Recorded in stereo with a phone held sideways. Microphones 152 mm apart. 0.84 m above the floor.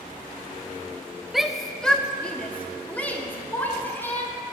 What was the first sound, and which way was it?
A shout, centre (ahead or behind).